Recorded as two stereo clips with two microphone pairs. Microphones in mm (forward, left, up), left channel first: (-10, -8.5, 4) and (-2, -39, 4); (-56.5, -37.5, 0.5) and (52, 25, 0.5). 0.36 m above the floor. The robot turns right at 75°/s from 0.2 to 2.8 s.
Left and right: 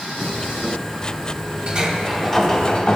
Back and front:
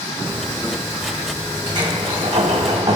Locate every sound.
1.7 s a sliding door: 20° right, 1.7 m; by 3.0 s 65° left, 1.7 m